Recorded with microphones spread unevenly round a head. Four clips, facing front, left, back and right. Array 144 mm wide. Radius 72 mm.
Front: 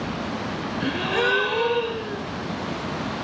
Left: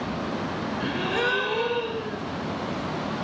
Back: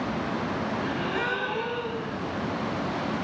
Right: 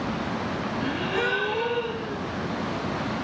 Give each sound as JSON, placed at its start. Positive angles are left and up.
{"t": 0.8, "sound": "a gasp", "azimuth_deg": 25, "distance_m": 1.5}